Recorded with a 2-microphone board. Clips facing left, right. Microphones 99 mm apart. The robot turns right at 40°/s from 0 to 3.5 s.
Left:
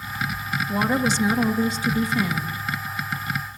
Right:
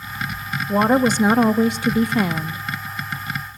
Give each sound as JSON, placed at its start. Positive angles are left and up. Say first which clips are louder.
{"t": 0.7, "sound": "a woman speaking", "louder": "right 7 dB", "azimuth_deg": -135, "distance_m": 1.0}